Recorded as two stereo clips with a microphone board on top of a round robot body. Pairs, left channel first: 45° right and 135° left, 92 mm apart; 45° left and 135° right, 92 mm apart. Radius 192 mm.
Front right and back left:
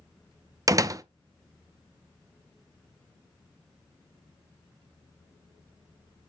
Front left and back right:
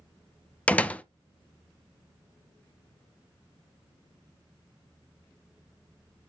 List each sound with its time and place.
0.7 s a door slam: 115° left, 0.8 m